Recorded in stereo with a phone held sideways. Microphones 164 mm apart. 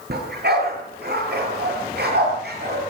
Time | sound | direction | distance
0.1 | a dog barking | 85° right | 8 m